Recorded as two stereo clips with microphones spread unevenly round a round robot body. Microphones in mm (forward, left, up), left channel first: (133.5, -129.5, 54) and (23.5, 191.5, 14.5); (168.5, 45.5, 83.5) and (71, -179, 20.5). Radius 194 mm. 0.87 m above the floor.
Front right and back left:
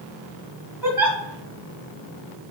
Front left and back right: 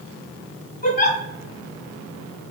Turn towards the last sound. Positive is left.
turn(degrees=25)